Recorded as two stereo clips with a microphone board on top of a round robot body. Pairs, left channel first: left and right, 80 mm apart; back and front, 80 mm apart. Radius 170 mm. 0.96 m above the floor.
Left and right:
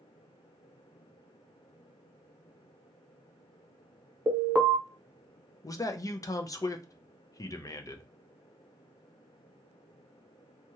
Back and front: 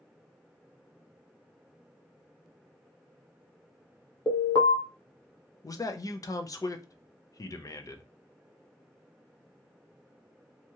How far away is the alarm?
About 1.0 m.